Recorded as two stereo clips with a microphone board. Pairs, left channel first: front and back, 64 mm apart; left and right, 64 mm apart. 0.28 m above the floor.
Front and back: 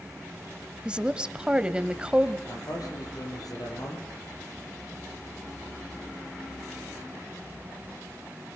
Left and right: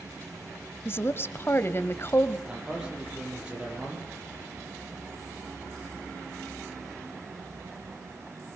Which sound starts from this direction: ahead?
A man speaking, at 2.5 s.